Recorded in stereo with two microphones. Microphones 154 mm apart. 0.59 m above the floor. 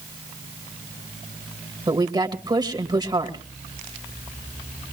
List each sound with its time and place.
1.9 s a woman speaking: 25° right (ahead or behind), 2 m